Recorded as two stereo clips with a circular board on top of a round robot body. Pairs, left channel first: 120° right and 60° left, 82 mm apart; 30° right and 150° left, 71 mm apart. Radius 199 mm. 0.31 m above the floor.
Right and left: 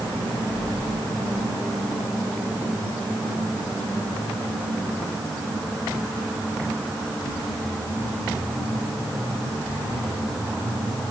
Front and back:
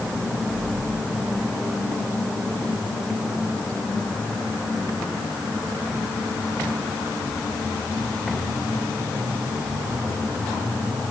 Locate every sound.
Only background noise.